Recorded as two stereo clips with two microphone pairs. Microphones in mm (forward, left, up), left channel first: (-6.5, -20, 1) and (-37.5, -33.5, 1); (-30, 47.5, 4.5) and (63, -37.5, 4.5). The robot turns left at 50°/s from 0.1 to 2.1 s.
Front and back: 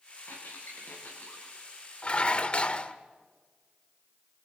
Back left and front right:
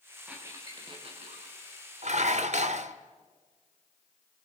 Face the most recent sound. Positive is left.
turn(degrees=-30)